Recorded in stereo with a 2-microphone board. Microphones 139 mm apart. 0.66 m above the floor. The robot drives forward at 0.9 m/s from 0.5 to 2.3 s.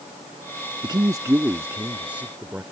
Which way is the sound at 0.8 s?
30° right (ahead or behind).